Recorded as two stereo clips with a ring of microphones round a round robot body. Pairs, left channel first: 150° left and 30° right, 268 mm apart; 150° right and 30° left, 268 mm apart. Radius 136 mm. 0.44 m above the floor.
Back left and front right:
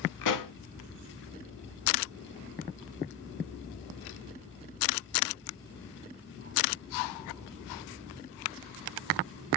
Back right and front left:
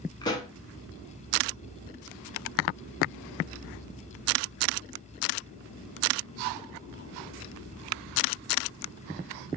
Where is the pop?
135° left, 0.6 m.